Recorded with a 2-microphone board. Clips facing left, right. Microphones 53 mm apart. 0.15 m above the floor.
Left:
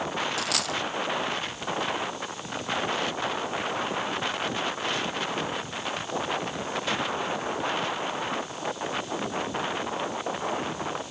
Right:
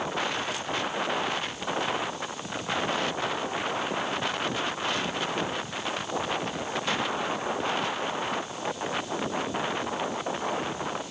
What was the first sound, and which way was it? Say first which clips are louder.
A dropped coin: left 1 dB; 85° left.